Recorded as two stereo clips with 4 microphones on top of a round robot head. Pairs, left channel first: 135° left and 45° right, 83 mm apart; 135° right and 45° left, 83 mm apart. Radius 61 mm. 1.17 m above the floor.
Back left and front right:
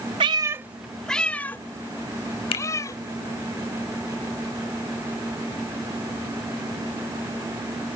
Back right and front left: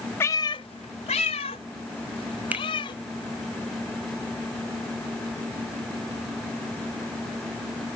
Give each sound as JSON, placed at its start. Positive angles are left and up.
{"t": 0.2, "sound": "a cat meowing", "azimuth_deg": -75}
{"t": 2.5, "sound": "a finger snap", "azimuth_deg": 115}